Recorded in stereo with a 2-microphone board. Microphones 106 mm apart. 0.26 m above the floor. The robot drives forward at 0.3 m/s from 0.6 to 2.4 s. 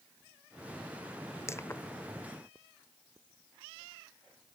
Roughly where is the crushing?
Left.